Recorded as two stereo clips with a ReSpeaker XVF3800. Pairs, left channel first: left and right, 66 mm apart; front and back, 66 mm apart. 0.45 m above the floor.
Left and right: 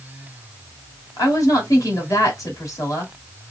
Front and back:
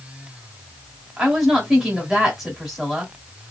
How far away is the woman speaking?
About 1.5 m.